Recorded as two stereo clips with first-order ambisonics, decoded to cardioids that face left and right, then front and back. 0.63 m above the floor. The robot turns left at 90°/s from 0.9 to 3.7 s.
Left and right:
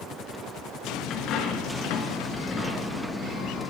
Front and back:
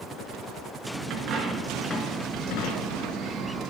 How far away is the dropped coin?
About 1.4 m.